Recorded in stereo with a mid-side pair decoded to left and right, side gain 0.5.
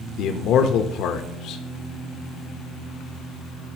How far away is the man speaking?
About 0.9 m.